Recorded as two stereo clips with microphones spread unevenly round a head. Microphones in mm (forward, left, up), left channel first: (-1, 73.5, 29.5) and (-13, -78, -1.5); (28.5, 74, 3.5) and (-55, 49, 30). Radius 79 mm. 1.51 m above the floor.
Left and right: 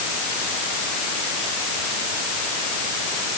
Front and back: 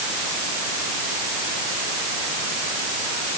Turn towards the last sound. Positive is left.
No sound to turn to.